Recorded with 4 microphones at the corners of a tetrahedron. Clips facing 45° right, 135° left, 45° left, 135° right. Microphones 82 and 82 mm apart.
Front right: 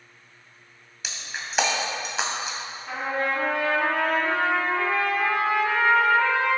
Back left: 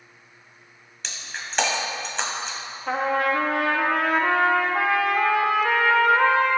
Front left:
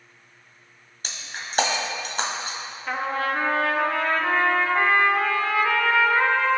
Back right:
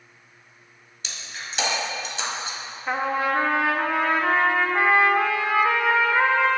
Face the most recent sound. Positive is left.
turn(degrees=155)